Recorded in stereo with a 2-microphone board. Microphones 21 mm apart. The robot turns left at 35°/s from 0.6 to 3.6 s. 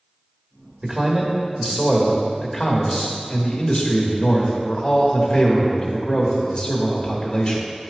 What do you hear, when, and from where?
0.8 s a man speaking: 135° right, 1.3 m; by 7.7 s 130° left, 1.3 m